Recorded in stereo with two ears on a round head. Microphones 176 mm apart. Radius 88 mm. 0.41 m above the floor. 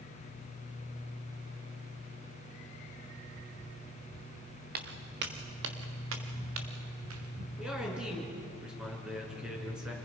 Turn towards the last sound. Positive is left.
turn(degrees=-5)  # may be behind; listen again after turning